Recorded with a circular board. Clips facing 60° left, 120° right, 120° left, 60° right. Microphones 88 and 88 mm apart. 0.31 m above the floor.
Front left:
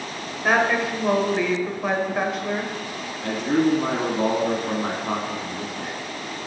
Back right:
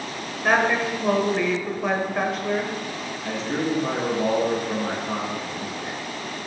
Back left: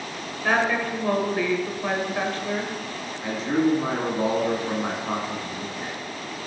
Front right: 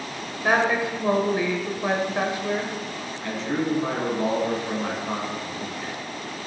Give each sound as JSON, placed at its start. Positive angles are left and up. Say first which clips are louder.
{"t": 0.4, "sound": "a woman speaking", "louder": "even, front right 1 dB", "azimuth_deg": -25, "distance_m": 1.5}
{"t": 3.2, "sound": "a man speaking", "louder": "front left 6 dB, back left 4 dB", "azimuth_deg": 50, "distance_m": 2.5}